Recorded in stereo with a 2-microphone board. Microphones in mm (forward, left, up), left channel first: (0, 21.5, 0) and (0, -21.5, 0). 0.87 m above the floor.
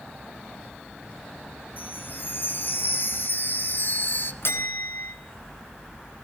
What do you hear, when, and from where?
1.8 s a chime: 45° left (ahead or behind), 1.2 m
4.4 s a bell: 60° left (ahead or behind), 3 m